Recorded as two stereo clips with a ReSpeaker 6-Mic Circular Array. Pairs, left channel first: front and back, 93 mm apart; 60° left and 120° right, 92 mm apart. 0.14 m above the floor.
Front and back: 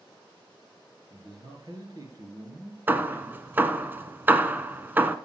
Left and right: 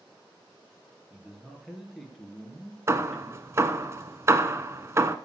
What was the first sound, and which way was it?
A man speaking, 150° left.